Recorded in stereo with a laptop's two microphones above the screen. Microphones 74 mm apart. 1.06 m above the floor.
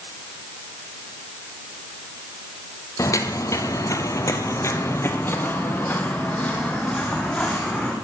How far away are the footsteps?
About 1.6 m.